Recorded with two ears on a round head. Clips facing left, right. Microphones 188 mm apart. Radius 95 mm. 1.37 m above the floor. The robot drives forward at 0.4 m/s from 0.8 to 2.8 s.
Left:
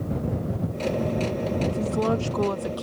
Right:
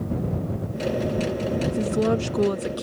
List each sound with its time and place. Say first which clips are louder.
1.7 s a woman speaking: right 4 dB; 20° right (ahead or behind)